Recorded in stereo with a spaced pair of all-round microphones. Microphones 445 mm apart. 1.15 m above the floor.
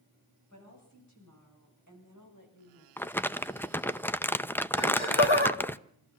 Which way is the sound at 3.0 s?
5° left (ahead or behind).